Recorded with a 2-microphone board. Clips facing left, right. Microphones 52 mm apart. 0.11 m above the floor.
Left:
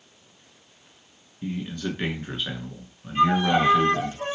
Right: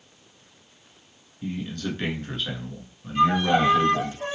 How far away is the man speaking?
About 1.0 m.